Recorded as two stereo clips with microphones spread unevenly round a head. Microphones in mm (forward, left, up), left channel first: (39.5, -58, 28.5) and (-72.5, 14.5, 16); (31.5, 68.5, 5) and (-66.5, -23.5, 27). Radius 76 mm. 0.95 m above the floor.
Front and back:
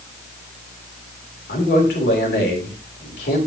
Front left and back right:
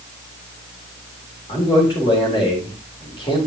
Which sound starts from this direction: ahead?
A man speaking, at 1.5 s.